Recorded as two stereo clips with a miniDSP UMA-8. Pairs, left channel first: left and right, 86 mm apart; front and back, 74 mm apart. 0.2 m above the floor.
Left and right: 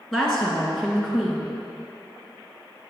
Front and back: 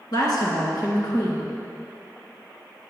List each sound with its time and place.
0.1 s a woman speaking: 5° left, 2 m